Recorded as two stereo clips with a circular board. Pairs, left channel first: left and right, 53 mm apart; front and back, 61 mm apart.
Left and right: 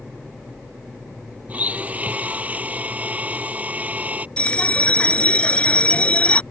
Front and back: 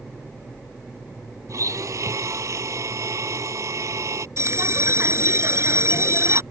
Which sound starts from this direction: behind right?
A blender, at 1.5 s.